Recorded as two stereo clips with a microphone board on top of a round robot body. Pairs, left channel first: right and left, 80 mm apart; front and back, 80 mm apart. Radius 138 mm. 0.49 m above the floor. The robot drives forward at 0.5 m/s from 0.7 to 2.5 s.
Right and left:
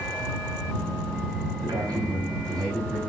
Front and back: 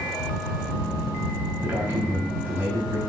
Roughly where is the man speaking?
Behind left.